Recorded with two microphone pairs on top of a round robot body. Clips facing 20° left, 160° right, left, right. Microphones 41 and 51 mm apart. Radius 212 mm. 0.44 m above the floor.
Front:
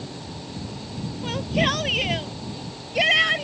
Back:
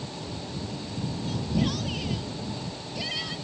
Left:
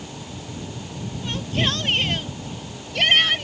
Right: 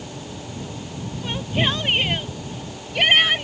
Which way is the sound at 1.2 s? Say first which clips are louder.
Front 6 dB, right 2 dB; 15° right.